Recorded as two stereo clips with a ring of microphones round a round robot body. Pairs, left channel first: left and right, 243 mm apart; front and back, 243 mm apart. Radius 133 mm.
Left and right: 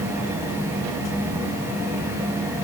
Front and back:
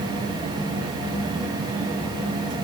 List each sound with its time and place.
Only background noise.